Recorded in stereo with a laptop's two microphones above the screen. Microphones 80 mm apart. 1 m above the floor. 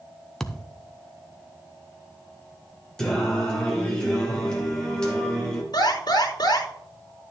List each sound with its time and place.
0.4 s a thud: 5° left (ahead or behind), 0.6 m
3.0 s singing: 10° left (ahead or behind), 1.7 m
5.7 s an alarm: 55° left (ahead or behind), 3.5 m